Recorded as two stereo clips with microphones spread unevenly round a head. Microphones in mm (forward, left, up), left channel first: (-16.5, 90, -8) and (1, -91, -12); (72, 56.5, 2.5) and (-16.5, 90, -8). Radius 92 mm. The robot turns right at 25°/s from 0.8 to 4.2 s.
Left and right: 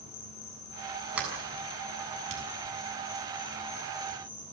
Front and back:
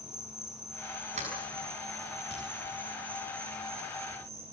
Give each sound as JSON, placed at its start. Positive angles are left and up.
{"t": 0.0, "sound": "an insect", "azimuth_deg": 75, "distance_m": 7.0}
{"t": 1.1, "sound": "a sliding door", "azimuth_deg": -170, "distance_m": 6.5}